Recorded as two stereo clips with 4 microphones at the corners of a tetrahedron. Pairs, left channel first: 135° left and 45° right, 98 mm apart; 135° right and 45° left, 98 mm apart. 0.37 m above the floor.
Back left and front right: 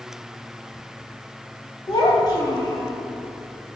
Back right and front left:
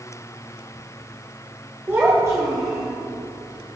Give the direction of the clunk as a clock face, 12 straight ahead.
No clunk in this recording.